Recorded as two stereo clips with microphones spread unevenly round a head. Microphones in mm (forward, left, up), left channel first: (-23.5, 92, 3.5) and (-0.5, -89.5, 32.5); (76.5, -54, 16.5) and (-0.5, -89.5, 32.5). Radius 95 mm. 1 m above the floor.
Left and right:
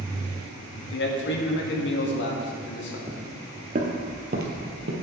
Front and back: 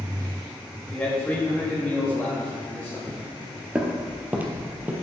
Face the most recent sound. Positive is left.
turn(degrees=-95)